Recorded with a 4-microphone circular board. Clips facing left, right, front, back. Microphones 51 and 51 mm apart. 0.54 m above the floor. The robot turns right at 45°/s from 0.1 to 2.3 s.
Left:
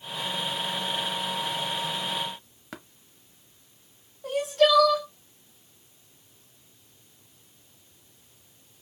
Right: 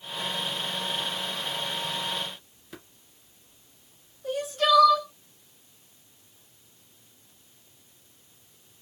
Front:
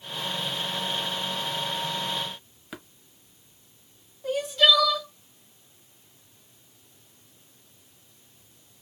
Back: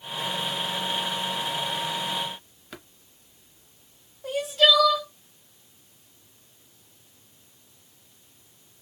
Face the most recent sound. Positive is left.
turn(degrees=95)